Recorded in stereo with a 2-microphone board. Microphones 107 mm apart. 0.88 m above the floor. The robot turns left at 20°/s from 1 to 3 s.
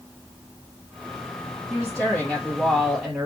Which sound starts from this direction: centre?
A woman speaking, at 1.7 s.